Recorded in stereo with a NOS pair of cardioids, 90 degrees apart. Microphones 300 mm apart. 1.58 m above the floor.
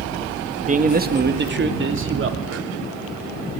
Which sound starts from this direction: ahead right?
A man speaking, at 0.7 s.